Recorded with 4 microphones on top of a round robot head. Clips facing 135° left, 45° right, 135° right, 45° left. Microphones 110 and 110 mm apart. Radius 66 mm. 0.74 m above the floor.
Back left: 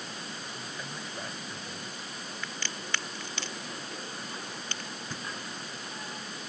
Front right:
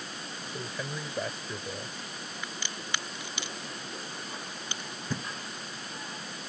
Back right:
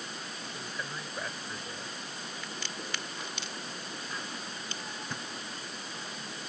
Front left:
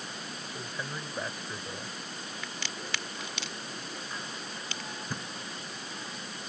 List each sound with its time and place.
0.4 s a man speaking: 40° right
2.4 s a crack: 30° left
5.1 s a thud: 40° right